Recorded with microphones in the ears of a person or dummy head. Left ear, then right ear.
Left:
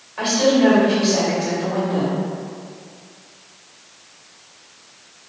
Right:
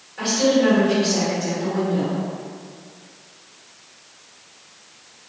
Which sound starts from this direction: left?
A woman speaking, at 0.2 s.